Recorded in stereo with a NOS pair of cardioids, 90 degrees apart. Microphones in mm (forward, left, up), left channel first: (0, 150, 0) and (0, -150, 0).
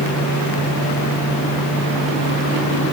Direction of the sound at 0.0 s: 65° left.